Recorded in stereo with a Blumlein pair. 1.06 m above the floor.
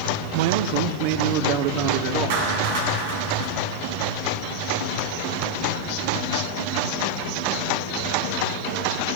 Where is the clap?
50° right, 9 m.